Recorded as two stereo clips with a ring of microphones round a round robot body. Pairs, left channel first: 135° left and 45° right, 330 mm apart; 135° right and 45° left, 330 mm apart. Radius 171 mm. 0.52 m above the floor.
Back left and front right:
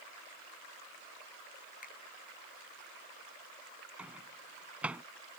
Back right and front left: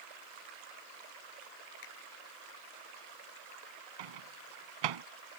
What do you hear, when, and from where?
1.8 s a finger snap: 160° right
4.0 s a microwave: 40° left